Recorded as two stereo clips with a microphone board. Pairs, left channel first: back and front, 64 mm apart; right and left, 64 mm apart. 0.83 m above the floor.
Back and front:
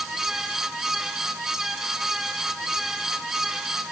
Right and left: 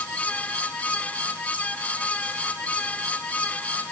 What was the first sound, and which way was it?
Only background noise.